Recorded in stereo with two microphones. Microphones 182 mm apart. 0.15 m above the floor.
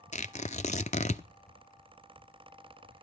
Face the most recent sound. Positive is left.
turn(degrees=40)  # may be behind; listen again after turning